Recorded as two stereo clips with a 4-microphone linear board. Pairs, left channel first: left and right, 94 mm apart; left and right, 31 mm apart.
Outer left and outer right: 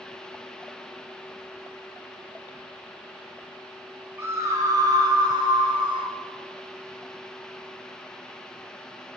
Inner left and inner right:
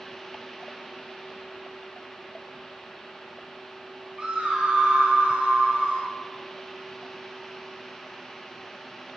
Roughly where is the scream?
Right.